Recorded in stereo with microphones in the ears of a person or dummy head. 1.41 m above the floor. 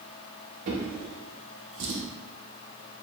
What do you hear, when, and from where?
0.7 s a drawer: 35° right (ahead or behind), 0.7 m